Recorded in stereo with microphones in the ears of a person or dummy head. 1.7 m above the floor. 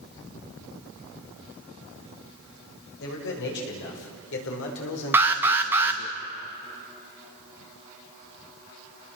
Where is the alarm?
10° right (ahead or behind), 1.6 m.